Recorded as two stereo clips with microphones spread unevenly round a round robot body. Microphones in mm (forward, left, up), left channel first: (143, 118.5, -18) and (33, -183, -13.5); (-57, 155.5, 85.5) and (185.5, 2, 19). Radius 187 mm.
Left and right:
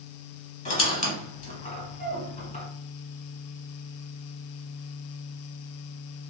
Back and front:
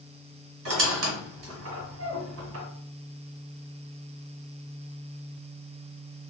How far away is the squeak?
About 1.4 m.